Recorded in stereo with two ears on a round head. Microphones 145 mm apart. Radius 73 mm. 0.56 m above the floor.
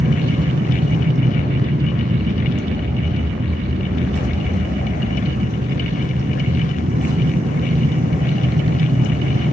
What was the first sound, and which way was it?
An aircraft, 45° right (ahead or behind).